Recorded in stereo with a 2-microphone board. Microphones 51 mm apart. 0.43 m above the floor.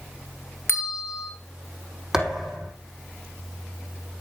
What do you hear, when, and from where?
0.7 s a bell: 60° left (ahead or behind), 2.5 m
2.1 s a thud: 10° right (ahead or behind), 4 m